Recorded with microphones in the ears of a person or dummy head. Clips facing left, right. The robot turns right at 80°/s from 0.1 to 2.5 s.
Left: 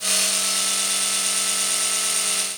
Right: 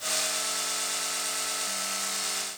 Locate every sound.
Only background noise.